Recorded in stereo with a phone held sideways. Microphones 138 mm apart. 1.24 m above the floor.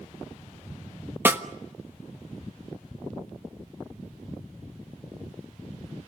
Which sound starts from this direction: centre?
A snare drum, at 1.2 s.